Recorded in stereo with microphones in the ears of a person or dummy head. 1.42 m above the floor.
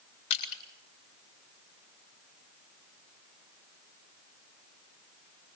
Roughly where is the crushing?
Left.